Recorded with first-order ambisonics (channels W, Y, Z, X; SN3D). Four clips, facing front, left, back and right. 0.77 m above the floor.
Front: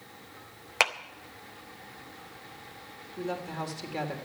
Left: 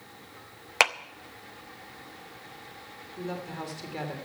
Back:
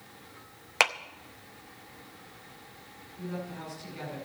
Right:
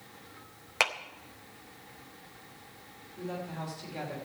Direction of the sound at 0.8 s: 100° left.